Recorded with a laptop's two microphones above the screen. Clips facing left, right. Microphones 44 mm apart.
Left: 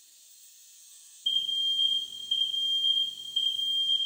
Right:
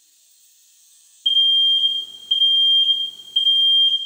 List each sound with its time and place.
1.2 s an alarm: 75° right (ahead or behind), 0.9 m